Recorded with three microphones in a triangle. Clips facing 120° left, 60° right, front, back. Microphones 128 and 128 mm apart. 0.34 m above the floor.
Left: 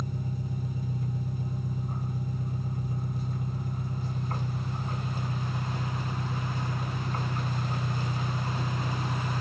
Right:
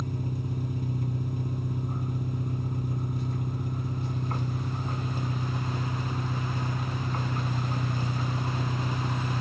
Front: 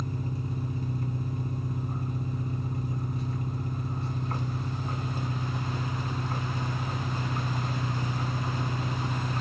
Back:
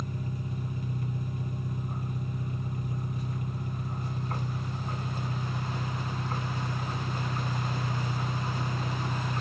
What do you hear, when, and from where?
0.0 s an engine running: 60° right, 1.5 m